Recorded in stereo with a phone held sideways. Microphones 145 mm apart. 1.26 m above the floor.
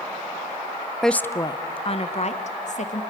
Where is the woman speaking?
Centre (ahead or behind), 0.5 m; by 3.0 s 60° left (ahead or behind), 1.6 m.